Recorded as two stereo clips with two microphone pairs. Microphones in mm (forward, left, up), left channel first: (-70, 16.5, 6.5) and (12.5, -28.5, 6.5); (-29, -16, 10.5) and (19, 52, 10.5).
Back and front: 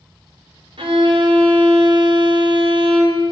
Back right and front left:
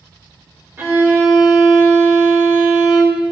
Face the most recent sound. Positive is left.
turn(degrees=-5)